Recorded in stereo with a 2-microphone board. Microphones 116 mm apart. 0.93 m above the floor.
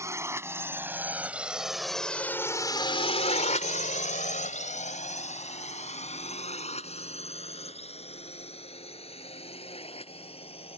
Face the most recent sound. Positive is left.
turn(degrees=50)  # may be behind; listen again after turning